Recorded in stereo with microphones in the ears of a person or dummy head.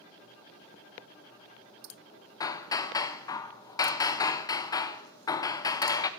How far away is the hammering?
About 0.5 m.